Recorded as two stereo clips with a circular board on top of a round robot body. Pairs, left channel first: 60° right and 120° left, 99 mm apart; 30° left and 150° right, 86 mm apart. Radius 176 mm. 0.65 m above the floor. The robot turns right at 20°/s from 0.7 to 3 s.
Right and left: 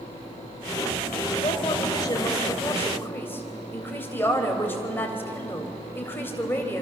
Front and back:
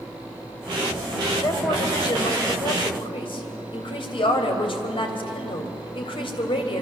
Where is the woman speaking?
20° right, 3.5 m; by 6.8 s 10° left, 3.5 m.